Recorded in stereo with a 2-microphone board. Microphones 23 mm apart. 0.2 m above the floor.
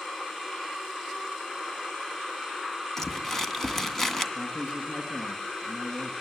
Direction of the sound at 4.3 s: 40° left (ahead or behind).